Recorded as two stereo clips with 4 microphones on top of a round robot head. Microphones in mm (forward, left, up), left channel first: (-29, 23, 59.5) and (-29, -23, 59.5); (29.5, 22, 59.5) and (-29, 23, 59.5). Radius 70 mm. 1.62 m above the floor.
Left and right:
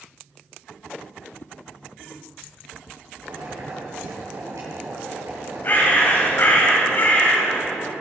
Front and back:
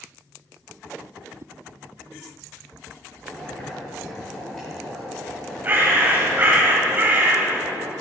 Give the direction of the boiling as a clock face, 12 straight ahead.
3 o'clock.